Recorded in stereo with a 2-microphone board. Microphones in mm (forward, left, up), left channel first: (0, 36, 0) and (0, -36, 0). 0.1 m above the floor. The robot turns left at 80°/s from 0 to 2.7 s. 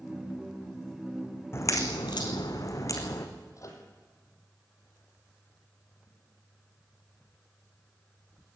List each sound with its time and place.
1.5 s a crack: 35° left (ahead or behind), 2.5 m; by 3.3 s 50° left (ahead or behind), 2.5 m
3.6 s a microwave: 50° left (ahead or behind), 3.5 m